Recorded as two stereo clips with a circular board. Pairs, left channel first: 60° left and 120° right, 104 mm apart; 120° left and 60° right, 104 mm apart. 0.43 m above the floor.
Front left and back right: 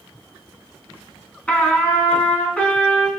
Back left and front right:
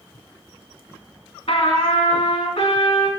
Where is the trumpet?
140° left, 1.6 m.